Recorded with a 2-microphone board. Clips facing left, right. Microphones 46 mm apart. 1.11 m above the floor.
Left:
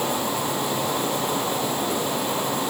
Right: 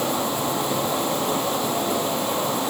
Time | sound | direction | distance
0.0 | an insect | 70° right (ahead or behind) | 9 m